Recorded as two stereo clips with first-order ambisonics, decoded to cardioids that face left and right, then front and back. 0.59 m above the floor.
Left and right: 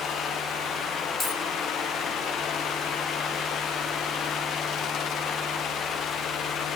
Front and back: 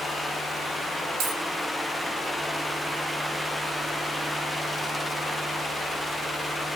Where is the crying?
I don't hear crying.